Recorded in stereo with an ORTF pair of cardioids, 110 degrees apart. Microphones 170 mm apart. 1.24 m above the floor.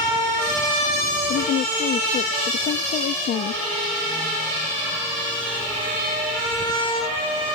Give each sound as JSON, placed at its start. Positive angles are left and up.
{"t": 1.3, "sound": "a woman speaking", "azimuth_deg": 65}